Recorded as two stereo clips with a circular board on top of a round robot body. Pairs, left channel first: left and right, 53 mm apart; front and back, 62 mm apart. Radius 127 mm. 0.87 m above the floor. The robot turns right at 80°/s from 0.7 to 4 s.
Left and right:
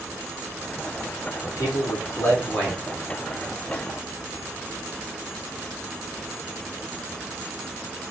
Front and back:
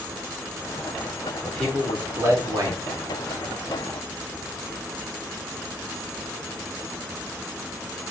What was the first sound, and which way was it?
A man speaking, 65° left.